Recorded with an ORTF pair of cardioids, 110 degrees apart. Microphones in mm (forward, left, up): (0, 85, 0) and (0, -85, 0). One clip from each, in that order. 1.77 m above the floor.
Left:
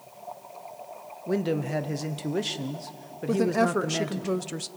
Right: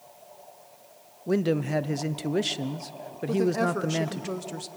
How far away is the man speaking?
About 0.9 m.